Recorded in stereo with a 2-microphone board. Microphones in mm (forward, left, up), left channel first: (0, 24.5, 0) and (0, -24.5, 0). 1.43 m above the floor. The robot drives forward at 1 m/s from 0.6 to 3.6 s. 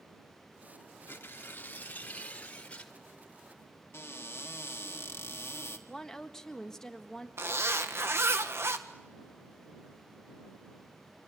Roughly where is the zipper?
Right.